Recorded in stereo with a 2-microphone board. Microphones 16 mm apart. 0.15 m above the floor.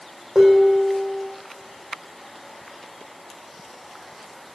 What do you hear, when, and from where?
0.3 s dishes clattering: 15° right (ahead or behind), 4.5 m